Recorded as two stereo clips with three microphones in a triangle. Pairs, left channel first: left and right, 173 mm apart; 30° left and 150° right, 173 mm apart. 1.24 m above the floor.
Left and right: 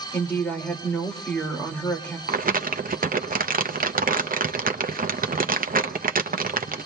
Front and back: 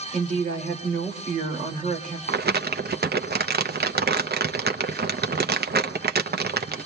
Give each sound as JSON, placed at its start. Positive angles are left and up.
{"t": 0.1, "sound": "a woman speaking", "azimuth_deg": 170, "distance_m": 2.5}
{"t": 2.3, "sound": "crumpling", "azimuth_deg": -125, "distance_m": 0.7}